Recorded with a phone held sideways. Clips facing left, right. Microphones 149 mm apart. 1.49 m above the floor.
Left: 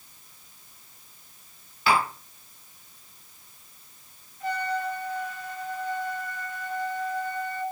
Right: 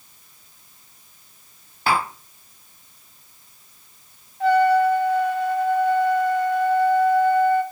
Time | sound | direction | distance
1.9 | tapping | 45° right (ahead or behind) | 4 m
4.4 | a trumpet | 80° right | 1.5 m